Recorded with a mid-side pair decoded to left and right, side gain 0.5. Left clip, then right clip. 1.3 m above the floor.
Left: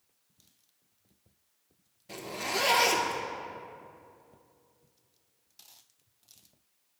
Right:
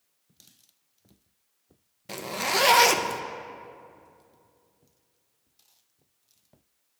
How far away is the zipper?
About 0.6 m.